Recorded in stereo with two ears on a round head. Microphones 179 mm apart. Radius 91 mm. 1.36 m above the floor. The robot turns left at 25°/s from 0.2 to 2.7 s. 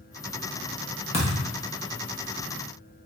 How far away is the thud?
About 0.7 m.